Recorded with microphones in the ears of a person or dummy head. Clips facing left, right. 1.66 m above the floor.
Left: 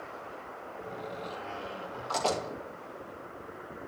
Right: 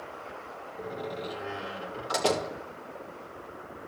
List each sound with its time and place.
0.8 s a door slam: 20° right (ahead or behind), 2.5 m